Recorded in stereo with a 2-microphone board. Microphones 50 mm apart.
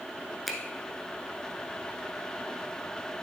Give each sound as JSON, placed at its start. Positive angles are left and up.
{"t": 0.5, "sound": "a finger snap", "side_deg": 0, "distance_m": 0.9}